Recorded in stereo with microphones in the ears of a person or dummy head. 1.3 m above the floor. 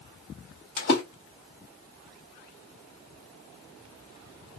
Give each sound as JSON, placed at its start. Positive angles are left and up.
{"t": 0.8, "sound": "a splash", "side_deg": 50, "distance_m": 1.3}